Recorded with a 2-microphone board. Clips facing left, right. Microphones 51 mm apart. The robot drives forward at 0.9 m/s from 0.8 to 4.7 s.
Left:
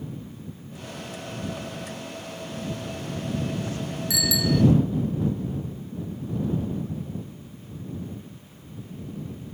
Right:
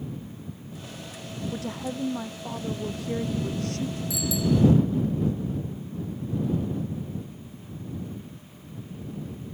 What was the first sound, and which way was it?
A woman speaking, 80° right.